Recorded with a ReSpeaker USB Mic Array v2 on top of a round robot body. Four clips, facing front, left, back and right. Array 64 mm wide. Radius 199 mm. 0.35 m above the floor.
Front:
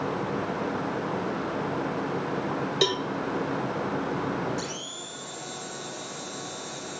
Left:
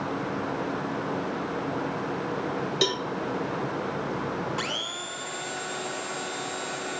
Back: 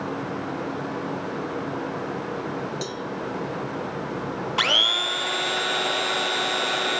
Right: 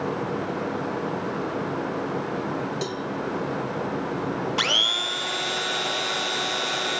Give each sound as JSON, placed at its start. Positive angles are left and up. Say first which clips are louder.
{"t": 2.8, "sound": "a cowbell", "louder": "left 2 dB, front 6 dB", "azimuth_deg": 30, "distance_m": 1.1}
{"t": 4.6, "sound": "a blender", "louder": "right 6 dB, back 12 dB", "azimuth_deg": -160, "distance_m": 0.8}